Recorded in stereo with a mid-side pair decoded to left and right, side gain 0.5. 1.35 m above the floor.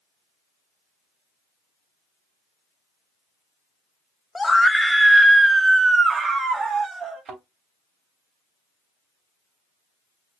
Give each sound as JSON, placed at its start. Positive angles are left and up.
{"t": 4.3, "sound": "a scream", "azimuth_deg": 15, "distance_m": 1.1}
{"t": 7.2, "sound": "a thud", "azimuth_deg": -65, "distance_m": 3.0}